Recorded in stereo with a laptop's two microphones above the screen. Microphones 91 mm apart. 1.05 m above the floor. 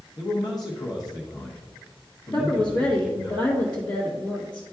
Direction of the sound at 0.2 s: 45° left (ahead or behind).